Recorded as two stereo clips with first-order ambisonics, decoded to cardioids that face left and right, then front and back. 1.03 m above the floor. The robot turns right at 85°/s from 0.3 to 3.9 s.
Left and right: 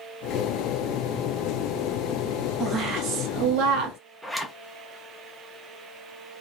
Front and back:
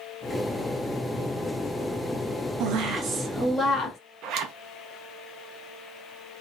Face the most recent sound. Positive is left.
turn(degrees=180)